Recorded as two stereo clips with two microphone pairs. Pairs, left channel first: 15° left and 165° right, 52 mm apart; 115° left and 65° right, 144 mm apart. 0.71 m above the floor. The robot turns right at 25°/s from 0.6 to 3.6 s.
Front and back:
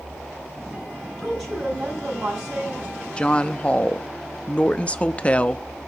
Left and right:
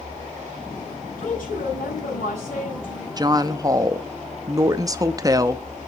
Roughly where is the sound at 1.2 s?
Left.